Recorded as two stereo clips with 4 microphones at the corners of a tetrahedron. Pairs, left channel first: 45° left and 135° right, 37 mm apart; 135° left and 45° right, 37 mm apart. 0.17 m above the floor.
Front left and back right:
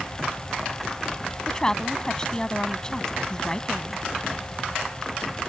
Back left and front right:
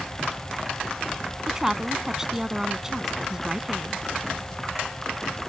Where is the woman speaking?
10° left.